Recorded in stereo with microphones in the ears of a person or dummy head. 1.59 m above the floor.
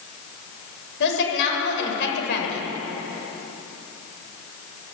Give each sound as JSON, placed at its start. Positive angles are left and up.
{"t": 1.0, "sound": "a woman speaking", "side_deg": 65, "distance_m": 8.0}